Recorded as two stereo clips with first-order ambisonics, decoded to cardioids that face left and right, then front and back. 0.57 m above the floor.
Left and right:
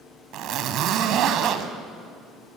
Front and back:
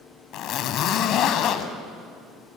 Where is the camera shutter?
I don't hear a camera shutter.